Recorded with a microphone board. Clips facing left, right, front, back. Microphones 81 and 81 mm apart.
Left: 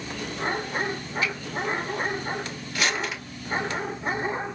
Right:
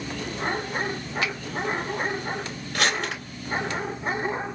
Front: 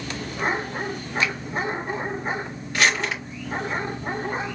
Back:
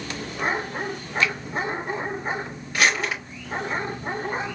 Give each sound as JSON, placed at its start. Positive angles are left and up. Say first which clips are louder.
{"t": 1.2, "sound": "a finger snap", "louder": "even, back 2 dB", "azimuth_deg": -70, "distance_m": 0.9}
{"t": 2.7, "sound": "crumpling", "louder": "right 2 dB, even", "azimuth_deg": -95, "distance_m": 3.5}